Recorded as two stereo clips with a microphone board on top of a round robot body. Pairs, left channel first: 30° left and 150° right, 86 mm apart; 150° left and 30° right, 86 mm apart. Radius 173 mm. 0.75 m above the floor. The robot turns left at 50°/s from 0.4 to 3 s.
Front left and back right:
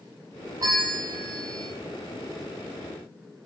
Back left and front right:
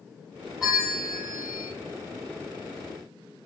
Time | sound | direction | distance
0.6 | a bell | 110° right | 2.5 m